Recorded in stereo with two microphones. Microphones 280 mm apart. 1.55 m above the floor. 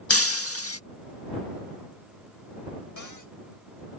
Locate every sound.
0.1 s breaking glass: 50° left (ahead or behind)
3.0 s a cupboard door: 80° left